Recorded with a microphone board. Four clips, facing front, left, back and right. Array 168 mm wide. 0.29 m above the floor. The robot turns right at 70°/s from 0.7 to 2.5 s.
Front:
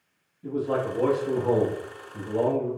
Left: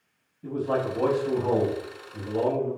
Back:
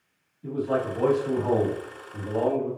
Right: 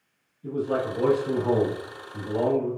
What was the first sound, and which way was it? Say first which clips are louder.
A man speaking: even, even; 85° left.